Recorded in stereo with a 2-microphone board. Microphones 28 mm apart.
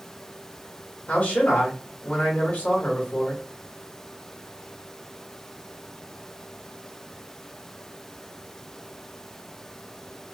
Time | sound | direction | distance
1.1 | a man speaking | 60° left (ahead or behind) | 1.5 m